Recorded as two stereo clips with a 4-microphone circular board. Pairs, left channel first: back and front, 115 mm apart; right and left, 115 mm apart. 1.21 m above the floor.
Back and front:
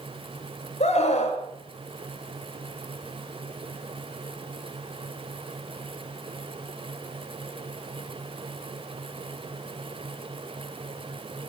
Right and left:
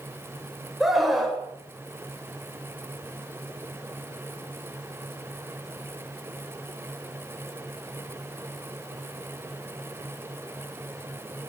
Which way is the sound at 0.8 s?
Straight behind.